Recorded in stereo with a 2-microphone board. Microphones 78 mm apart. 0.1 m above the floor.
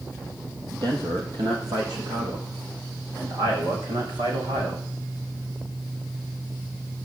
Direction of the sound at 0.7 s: 60° right (ahead or behind).